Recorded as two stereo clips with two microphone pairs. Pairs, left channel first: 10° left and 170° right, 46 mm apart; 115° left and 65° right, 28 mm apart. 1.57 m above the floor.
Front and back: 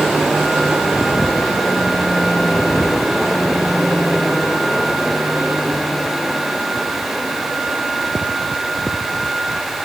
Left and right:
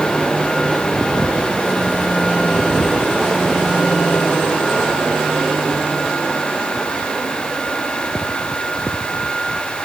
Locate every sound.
Only background noise.